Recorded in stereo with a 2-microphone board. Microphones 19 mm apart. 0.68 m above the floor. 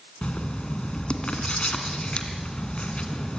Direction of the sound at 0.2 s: 80° left.